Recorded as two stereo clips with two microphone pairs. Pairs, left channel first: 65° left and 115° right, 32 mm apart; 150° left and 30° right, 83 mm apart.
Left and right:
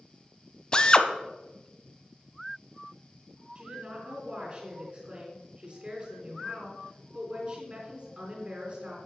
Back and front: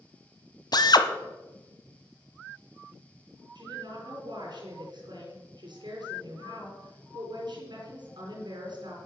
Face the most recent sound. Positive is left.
turn(degrees=-55)